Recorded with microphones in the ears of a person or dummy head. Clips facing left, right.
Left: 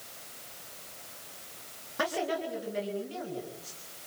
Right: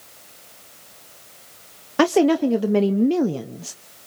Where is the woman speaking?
75° right (ahead or behind), 0.9 m.